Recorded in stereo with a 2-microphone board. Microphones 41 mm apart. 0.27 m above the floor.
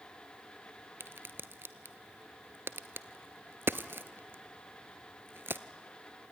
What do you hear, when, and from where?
1.0 s a crack: 65° right (ahead or behind), 0.7 m